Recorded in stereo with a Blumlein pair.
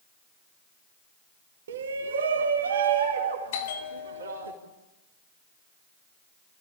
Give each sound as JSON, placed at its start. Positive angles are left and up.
{"t": 1.7, "sound": "a shout", "azimuth_deg": -60, "distance_m": 1.2}
{"t": 3.5, "sound": "a bell", "azimuth_deg": 55, "distance_m": 2.5}